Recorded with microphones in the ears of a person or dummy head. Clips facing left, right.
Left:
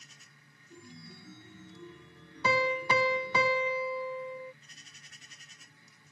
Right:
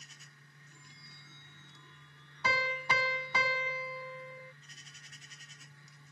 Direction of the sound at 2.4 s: 70° left (ahead or behind).